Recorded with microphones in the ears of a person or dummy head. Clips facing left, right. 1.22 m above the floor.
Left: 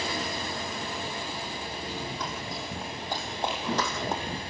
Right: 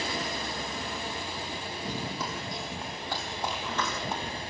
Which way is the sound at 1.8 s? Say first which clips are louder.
Right 2 dB; 15° right (ahead or behind).